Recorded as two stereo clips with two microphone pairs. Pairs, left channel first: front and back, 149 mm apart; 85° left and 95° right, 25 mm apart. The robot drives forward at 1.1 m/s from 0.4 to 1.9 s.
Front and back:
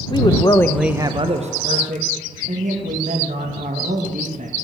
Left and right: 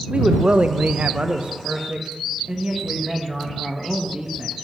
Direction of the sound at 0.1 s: 55° right.